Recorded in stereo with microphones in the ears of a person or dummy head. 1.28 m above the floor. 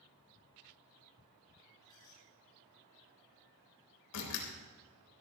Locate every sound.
1.8 s a squeak: 15° left (ahead or behind), 6.5 m
4.1 s a door slam: 80° left, 3.5 m